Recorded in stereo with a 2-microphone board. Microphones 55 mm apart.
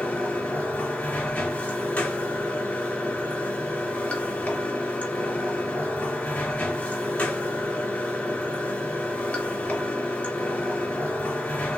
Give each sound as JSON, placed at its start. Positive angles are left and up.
{"t": 0.0, "sound": "running water", "side_deg": 30, "distance_m": 1.5}